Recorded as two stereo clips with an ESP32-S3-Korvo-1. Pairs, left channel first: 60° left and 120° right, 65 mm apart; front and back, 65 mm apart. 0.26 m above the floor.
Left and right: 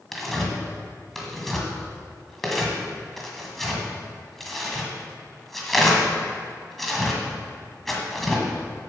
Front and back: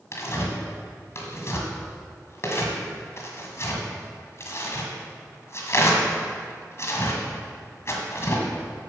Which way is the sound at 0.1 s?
25° right.